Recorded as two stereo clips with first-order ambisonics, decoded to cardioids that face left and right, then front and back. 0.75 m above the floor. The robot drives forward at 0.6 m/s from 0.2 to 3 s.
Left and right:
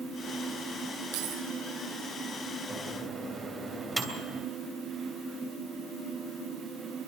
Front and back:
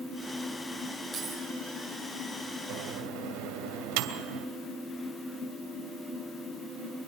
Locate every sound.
1.1 s keys jangling: 90° right, 8 m; by 1.4 s 95° right, 8 m
2.7 s a microwave: 170° right, 2.5 m